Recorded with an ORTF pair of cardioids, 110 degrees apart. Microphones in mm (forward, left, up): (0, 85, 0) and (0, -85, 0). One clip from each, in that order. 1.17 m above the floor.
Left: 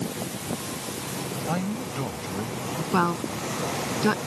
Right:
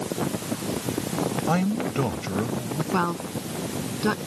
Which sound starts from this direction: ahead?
A woman speaking, at 2.9 s.